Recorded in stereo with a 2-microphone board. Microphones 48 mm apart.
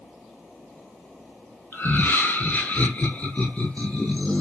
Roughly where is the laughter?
Left.